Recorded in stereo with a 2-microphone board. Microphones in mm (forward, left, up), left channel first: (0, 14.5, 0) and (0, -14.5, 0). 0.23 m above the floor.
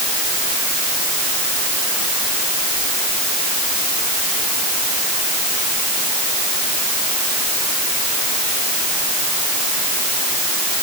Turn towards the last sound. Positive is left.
No sound to turn to.